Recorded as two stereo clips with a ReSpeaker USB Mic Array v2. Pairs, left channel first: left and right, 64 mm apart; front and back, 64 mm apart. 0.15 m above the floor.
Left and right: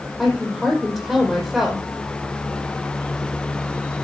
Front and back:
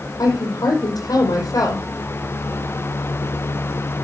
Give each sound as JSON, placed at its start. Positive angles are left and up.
{"t": 0.2, "sound": "a woman speaking", "azimuth_deg": -10, "distance_m": 5.5}